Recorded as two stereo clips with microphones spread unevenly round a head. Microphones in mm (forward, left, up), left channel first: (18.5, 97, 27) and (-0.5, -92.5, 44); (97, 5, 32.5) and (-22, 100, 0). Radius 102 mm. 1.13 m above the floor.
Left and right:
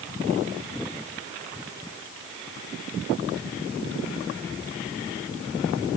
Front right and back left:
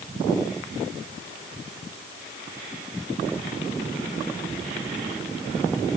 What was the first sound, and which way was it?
Only background noise.